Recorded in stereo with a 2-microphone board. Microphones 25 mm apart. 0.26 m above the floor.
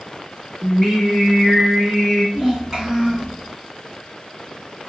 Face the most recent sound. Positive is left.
turn(degrees=-20)  # may be behind; listen again after turning